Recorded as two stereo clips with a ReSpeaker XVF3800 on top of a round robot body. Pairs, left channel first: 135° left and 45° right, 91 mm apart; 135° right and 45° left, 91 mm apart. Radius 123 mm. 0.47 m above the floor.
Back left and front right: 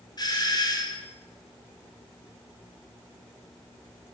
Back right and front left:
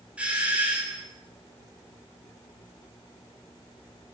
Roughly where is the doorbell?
Behind left.